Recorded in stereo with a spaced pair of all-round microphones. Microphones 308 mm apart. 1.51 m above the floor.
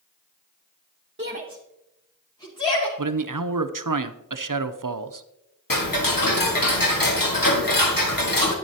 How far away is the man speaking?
About 0.6 m.